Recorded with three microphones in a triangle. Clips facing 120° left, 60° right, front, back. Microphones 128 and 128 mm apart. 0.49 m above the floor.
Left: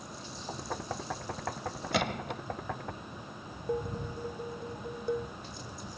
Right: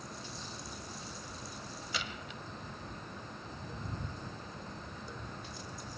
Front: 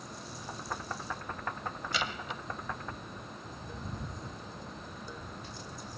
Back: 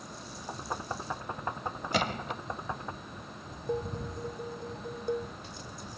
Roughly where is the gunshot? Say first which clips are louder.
Left 12 dB, back 7 dB; behind left.